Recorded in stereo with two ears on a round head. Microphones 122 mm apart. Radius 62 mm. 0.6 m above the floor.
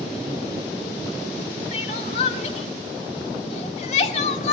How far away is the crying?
About 1.7 m.